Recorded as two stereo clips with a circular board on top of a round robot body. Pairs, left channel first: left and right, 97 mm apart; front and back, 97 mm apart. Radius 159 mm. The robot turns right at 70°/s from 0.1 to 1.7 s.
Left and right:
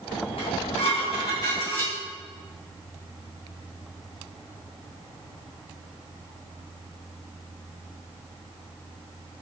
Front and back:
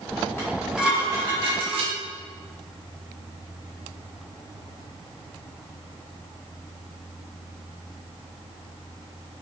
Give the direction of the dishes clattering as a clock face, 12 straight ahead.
10 o'clock.